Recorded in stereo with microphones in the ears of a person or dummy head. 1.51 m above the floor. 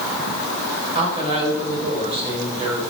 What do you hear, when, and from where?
0.9 s a man speaking: 30° right (ahead or behind), 7 m